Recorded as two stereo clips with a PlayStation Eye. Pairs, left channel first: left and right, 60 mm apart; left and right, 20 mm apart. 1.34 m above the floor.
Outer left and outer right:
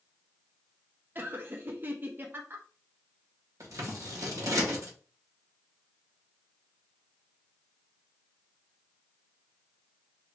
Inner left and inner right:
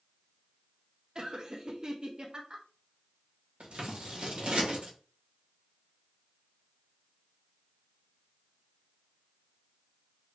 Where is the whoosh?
No whoosh in this recording.